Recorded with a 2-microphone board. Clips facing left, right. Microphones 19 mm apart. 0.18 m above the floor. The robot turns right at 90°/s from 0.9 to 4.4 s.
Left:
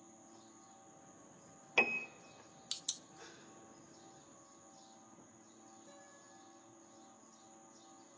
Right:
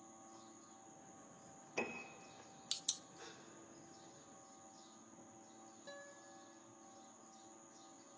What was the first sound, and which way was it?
A piano, 75° left (ahead or behind).